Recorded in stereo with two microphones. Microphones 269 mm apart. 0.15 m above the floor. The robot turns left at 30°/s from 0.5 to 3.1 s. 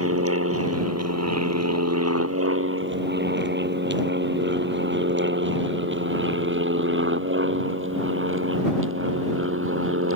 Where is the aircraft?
60° right (ahead or behind); by 10.2 s 50° right (ahead or behind).